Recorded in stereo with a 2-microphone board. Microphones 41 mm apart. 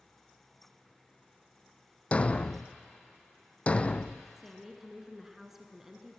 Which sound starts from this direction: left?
A thud, at 2.1 s.